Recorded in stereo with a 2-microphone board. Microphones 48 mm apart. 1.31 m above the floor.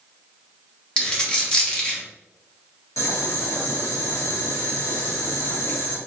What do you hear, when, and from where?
1.0 s a dropped coin: 20° left (ahead or behind), 0.8 m
3.0 s boiling: 85° left, 1.1 m